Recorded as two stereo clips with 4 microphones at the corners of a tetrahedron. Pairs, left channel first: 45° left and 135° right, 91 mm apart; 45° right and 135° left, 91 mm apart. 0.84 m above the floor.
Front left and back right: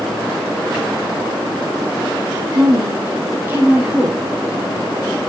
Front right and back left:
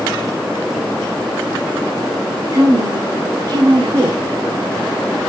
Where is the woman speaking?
175° left, 2.5 m; by 4.3 s 150° left, 3 m.